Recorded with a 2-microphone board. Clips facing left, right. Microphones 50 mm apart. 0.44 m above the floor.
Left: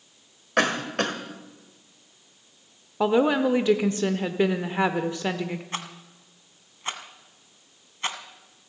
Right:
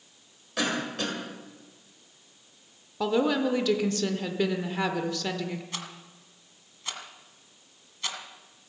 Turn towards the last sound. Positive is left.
turn(degrees=35)  # may be behind; listen again after turning